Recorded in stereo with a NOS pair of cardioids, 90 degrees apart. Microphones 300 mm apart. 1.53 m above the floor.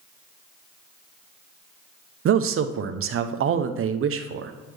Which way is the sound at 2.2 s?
45° right.